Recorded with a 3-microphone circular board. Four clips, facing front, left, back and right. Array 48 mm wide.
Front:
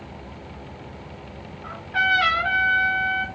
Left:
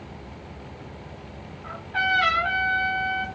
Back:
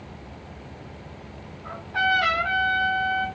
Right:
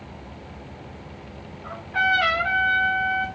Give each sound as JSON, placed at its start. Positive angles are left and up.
{"t": 1.6, "sound": "a trumpet", "azimuth_deg": 5, "distance_m": 1.5}